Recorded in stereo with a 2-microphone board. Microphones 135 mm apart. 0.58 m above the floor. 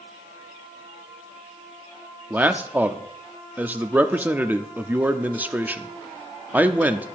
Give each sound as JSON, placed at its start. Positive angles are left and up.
{"t": 2.3, "sound": "a man speaking", "side_deg": -10, "distance_m": 0.6}